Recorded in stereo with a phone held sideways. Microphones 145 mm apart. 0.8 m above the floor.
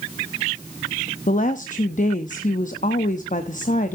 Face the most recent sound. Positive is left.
turn(degrees=65)  # may be behind; listen again after turning